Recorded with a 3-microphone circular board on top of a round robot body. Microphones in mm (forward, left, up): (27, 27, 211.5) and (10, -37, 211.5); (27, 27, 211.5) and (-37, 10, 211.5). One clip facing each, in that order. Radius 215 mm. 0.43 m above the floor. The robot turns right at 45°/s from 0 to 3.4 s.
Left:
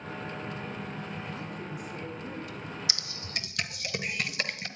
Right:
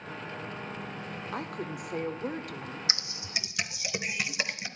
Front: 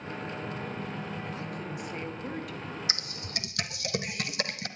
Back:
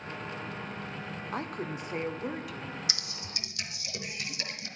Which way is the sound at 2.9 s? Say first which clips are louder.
Right 1 dB, front 3 dB; 45° right.